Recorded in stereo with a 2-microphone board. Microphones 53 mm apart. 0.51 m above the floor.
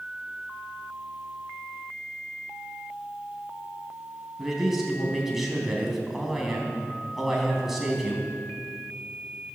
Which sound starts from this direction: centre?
A man speaking, at 4.4 s.